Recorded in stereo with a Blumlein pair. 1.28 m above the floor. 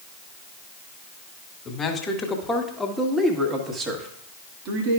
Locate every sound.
1.6 s a man speaking: 20° left, 1.7 m; by 5.0 s 45° right, 1.5 m